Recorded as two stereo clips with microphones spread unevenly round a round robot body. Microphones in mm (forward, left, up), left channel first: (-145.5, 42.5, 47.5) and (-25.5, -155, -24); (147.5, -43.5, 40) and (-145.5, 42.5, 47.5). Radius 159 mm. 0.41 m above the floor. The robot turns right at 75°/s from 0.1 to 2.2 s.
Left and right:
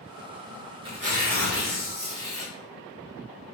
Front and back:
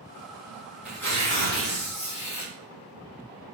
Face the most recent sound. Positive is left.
turn(degrees=-10)